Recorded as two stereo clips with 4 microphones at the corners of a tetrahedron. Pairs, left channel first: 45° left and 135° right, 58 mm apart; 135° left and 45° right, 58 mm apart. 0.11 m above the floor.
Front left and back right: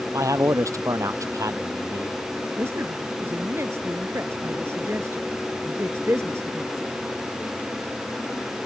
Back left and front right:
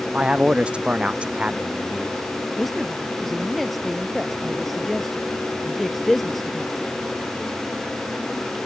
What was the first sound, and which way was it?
A man speaking, 115° right.